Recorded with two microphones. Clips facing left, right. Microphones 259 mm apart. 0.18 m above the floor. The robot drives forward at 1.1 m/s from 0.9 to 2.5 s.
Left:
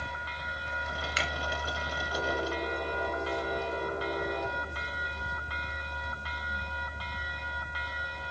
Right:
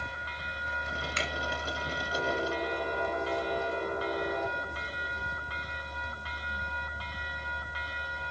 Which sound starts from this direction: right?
A finger snap, at 1.2 s.